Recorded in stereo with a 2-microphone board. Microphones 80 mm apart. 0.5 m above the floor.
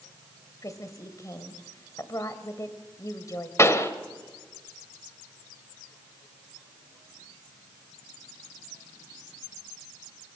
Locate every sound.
0.6 s a woman speaking: 45° left (ahead or behind), 2 m
3.6 s a pop: 35° left (ahead or behind), 1.7 m